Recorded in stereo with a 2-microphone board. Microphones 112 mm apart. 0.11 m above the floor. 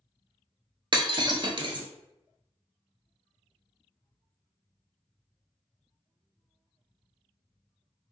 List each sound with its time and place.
0.9 s breaking glass: 50° right (ahead or behind), 0.6 m